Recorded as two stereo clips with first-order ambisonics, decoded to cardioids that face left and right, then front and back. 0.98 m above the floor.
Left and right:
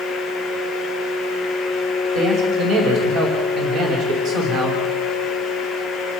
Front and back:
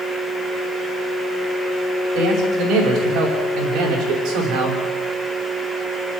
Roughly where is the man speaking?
Behind right.